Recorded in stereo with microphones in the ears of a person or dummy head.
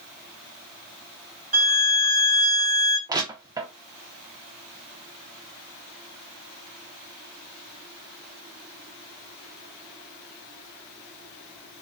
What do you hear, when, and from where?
1.5 s a violin: 35° right (ahead or behind), 0.6 m
3.1 s crushing: 20° right (ahead or behind), 0.5 m